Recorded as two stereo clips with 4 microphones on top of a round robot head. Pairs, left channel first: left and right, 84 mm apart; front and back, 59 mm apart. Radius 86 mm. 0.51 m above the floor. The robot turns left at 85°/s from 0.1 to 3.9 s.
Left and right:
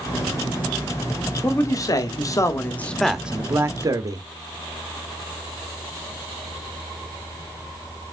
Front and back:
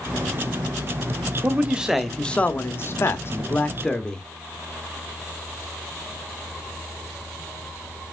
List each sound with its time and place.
1.4 s a man speaking: 140° left, 0.9 m; by 4.2 s 70° right, 0.9 m